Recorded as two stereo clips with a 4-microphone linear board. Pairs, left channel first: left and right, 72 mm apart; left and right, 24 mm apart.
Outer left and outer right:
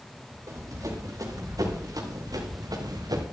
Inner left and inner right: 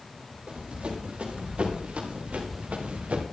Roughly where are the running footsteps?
Right.